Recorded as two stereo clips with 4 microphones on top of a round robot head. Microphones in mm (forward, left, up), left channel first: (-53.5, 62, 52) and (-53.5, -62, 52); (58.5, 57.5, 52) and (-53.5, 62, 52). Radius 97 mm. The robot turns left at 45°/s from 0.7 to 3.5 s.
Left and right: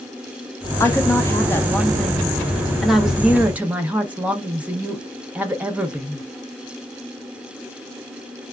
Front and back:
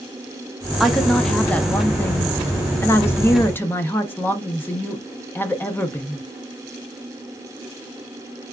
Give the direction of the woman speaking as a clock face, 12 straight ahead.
9 o'clock.